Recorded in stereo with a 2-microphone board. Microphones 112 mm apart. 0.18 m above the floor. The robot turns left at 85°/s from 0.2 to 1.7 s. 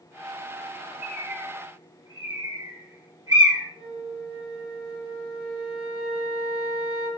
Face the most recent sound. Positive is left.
turn(degrees=40)  # may be behind; listen again after turning